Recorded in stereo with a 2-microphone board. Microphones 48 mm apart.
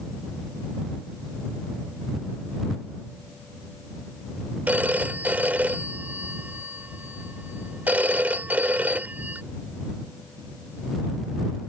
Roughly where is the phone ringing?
Right.